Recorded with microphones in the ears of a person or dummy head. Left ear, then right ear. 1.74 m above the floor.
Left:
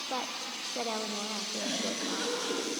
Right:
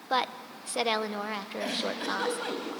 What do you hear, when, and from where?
0.1 s a woman speaking: 60° right (ahead or behind), 1.3 m
1.6 s a giggle: 35° right (ahead or behind), 4.5 m